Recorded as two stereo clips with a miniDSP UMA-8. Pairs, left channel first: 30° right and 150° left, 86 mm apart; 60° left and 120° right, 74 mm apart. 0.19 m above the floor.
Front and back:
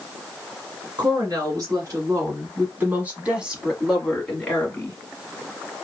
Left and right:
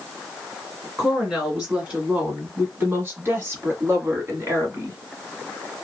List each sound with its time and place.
1.0 s a woman speaking: 165° left, 1.9 m; by 5.0 s 95° right, 1.6 m